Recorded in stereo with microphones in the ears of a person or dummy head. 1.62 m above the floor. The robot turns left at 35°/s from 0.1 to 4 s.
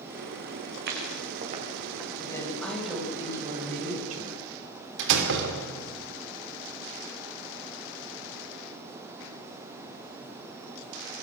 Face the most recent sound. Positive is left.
turn(degrees=-65)  # may be behind; listen again after turning